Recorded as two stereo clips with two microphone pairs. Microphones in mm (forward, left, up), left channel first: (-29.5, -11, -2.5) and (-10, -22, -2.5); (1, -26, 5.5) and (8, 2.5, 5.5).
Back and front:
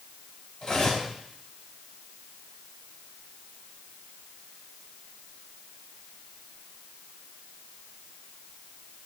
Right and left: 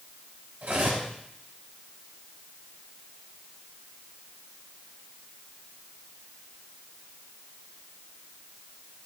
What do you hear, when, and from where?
0.6 s cutlery clinking: 85° left, 4.5 m